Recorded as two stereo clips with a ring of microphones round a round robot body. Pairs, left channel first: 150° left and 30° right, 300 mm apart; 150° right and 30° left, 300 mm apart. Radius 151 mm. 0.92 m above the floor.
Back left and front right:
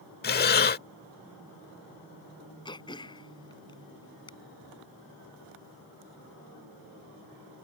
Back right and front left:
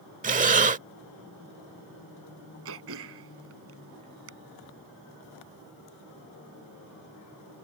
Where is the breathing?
95° left.